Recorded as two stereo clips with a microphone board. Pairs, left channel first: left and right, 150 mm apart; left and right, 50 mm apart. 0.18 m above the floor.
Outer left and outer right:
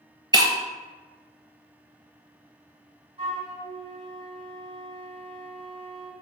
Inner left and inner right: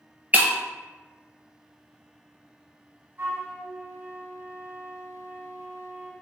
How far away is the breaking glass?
About 0.7 m.